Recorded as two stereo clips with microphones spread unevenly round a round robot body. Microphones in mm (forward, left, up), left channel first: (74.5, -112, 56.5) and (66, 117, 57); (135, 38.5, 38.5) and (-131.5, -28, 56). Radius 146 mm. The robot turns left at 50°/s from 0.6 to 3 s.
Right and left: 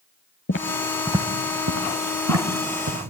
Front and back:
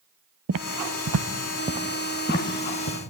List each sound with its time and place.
0.5 s footsteps: 135° right, 0.8 m; by 3.0 s 55° left, 3 m